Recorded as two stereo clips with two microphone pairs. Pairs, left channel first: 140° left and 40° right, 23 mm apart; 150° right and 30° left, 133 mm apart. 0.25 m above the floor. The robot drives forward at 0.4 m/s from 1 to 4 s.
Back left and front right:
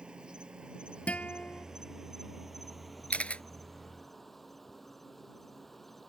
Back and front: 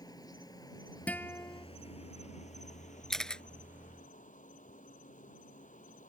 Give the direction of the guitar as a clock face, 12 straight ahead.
8 o'clock.